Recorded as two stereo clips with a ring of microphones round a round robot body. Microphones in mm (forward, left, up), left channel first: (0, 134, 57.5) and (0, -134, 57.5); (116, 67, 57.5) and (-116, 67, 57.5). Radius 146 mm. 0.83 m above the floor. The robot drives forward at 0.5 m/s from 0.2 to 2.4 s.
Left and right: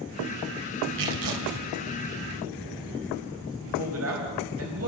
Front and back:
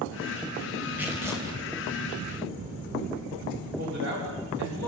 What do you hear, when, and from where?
1.0 s tearing paper: 95° right, 3 m; by 1.6 s 100° right, 3 m
3.6 s a man speaking: 130° right, 4 m